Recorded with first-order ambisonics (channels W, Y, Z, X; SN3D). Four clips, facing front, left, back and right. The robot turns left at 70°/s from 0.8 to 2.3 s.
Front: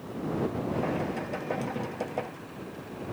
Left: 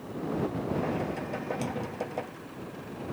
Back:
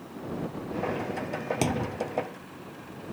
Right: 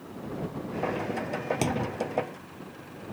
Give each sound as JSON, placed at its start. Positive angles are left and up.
{"t": 1.6, "sound": "a thud", "azimuth_deg": -145}